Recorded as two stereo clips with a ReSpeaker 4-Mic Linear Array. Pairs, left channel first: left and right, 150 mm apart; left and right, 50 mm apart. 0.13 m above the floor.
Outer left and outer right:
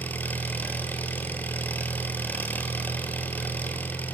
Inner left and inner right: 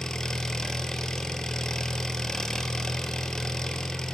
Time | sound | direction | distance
0.0 | an engine running | 10° left (ahead or behind) | 2.5 m